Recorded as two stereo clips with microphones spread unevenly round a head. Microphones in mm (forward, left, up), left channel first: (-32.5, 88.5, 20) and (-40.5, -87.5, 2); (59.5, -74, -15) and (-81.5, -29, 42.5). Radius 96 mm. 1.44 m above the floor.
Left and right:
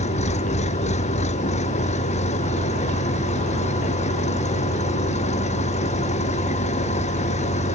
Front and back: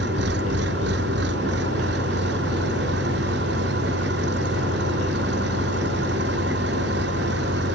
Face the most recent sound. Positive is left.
turn(degrees=140)